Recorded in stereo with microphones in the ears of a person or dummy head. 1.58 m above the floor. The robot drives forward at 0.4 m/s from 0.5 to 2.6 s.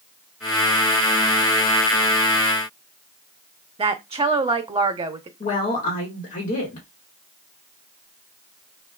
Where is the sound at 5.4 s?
35° left (ahead or behind), 1.8 m.